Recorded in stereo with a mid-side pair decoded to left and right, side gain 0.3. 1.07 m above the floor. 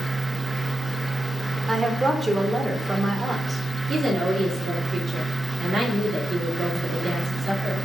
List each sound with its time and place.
0.0 s a fan: 15° right, 1.1 m
1.7 s a woman speaking: 40° right, 2.5 m
3.9 s a woman speaking: 70° right, 3 m